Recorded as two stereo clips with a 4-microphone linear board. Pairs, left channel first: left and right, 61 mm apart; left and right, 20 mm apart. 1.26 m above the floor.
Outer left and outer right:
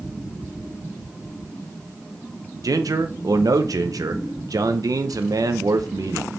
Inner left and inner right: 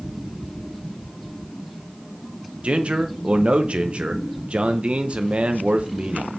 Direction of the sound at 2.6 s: 75° right (ahead or behind).